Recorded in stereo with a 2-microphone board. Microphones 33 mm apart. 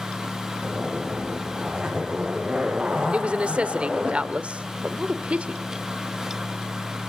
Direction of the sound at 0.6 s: 20° right (ahead or behind).